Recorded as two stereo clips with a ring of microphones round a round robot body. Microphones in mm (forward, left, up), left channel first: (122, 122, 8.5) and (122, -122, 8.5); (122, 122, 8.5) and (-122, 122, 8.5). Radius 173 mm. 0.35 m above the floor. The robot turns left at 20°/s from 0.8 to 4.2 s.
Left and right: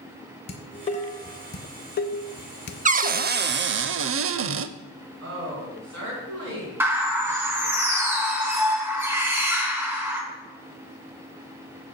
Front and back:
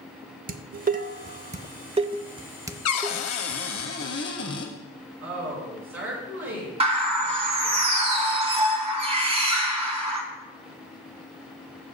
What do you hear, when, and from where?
0.5 s dishes clattering: 145° left, 0.6 m; by 3.9 s 85° left, 0.6 m
2.9 s a cupboard door: 30° right, 0.5 m; by 4.7 s 55° right, 0.5 m
5.2 s a woman speaking: 135° right, 4 m
6.8 s a bird: 155° right, 1.0 m